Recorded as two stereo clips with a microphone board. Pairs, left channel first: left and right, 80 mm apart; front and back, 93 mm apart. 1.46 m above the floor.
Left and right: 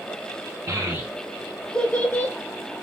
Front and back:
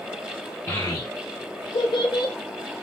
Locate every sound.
0.7 s a child speaking: 55° right, 0.6 m; by 2.3 s 30° left, 0.9 m